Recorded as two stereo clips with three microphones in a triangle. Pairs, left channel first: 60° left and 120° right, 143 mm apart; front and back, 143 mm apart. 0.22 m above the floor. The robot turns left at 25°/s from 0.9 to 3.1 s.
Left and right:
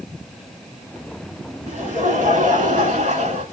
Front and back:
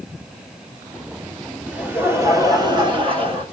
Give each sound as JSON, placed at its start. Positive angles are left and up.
{"t": 1.7, "sound": "laughter", "azimuth_deg": -100, "distance_m": 3.0}